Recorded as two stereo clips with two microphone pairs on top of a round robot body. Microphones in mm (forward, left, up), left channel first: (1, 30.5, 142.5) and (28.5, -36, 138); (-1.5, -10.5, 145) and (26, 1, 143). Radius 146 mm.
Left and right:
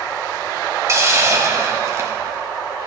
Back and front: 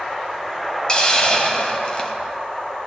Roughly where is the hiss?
Right.